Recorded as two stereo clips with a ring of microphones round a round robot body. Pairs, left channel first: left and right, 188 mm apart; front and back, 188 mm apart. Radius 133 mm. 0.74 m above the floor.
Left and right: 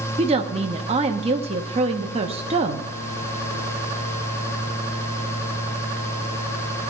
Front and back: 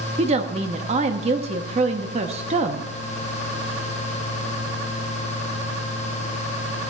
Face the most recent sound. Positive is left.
turn(degrees=-135)